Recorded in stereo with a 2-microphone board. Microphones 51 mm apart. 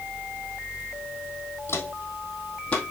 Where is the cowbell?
I don't hear a cowbell.